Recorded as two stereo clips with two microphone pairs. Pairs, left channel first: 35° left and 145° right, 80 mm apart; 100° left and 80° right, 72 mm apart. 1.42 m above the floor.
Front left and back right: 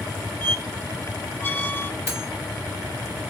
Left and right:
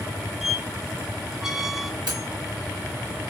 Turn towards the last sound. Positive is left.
turn(degrees=-90)